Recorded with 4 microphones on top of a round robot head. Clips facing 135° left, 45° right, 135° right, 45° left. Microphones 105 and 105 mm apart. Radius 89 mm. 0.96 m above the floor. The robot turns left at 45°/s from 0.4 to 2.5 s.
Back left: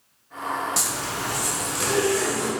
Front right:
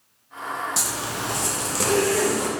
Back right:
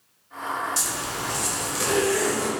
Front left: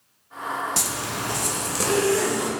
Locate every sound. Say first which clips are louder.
0.8 s a zipper: even, front left 1 dB; 45° left, 1.2 m; by 2.5 s 30° right, 1.2 m